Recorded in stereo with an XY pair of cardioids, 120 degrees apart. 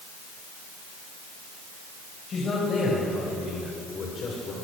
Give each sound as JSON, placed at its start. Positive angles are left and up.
{"t": 2.3, "sound": "a man speaking", "azimuth_deg": 40, "distance_m": 8.0}